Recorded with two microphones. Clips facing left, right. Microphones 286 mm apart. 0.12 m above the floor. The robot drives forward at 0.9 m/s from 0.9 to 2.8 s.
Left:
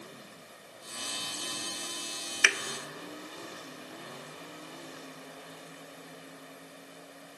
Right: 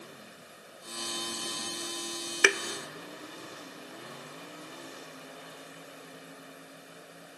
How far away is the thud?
About 0.7 m.